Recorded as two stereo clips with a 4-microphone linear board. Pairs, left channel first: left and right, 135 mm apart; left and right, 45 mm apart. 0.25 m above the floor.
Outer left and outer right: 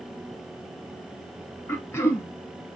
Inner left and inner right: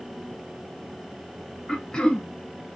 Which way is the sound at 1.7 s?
20° left (ahead or behind).